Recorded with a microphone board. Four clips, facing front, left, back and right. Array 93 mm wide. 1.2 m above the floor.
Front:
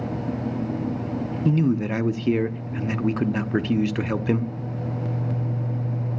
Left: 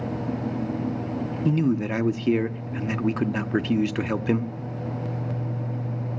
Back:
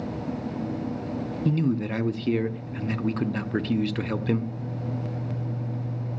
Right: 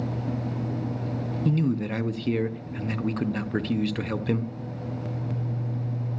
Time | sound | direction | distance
1.4 | a man speaking | 50° left | 0.6 m